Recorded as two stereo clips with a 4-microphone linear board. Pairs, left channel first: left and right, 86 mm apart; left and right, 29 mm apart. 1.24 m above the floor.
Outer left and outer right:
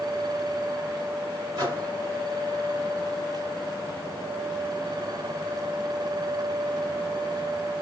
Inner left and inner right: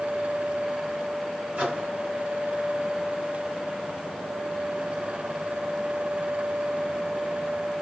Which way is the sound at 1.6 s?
50° right (ahead or behind).